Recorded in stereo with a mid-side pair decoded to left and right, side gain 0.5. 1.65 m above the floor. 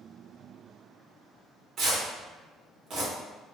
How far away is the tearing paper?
About 1.5 m.